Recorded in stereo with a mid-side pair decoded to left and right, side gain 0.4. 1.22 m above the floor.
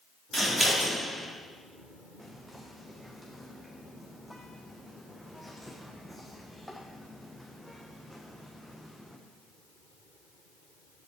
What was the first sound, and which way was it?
Scissors, 20° right.